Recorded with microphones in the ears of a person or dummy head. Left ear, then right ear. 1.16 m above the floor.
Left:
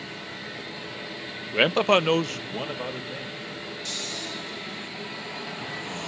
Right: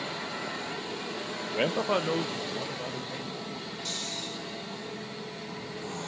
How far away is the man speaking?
About 0.6 m.